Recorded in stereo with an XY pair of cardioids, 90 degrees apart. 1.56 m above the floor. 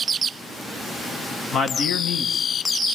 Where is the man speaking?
65° left, 1.8 m.